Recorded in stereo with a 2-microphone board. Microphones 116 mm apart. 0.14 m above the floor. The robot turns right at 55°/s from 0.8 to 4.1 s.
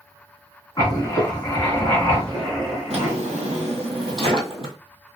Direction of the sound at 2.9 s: 115° right.